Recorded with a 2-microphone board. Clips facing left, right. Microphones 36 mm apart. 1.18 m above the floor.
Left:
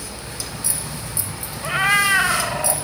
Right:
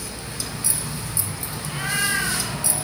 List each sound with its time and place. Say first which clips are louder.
1.6 s a cat meowing: left 8 dB; 75° left (ahead or behind), 3 m; by 2.8 s 80° left, 3 m